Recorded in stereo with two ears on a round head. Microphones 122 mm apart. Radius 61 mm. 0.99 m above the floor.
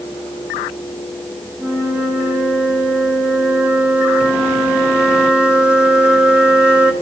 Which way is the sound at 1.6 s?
10° right (ahead or behind).